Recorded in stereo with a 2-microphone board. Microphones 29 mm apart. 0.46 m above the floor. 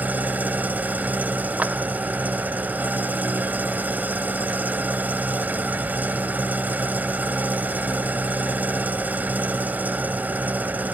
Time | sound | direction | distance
0.0 | an engine running | 80° right | 1.0 m
1.6 | a clap | 60° right (ahead or behind) | 1.5 m